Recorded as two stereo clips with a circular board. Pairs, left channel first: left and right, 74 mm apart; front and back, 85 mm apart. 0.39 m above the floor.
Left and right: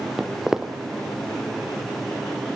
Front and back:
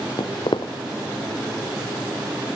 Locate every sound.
0.2 s footsteps: 5° right, 1.0 m